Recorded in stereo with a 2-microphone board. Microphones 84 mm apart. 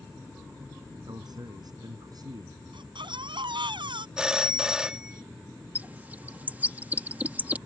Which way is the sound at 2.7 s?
70° right (ahead or behind).